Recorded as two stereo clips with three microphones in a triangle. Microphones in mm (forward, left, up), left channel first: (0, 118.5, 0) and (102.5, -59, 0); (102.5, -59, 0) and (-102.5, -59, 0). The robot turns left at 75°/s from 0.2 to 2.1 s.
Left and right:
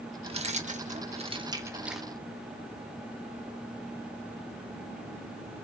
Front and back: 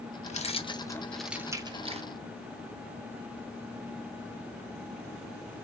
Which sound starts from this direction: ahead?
Keys jangling, at 0.2 s.